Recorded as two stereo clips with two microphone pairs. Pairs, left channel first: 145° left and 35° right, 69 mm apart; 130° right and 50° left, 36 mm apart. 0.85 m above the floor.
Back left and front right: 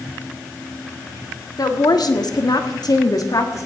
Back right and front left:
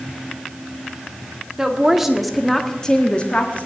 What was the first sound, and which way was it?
A woman speaking, 120° left.